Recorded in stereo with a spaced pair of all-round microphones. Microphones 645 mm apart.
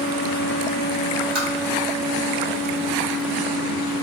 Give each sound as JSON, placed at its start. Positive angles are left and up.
{"t": 1.4, "sound": "tapping", "side_deg": -35, "distance_m": 1.7}